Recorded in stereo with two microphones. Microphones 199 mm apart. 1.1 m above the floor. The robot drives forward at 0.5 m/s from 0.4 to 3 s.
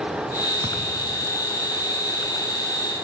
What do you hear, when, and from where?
0.6 s a thud: 25° right (ahead or behind), 5.5 m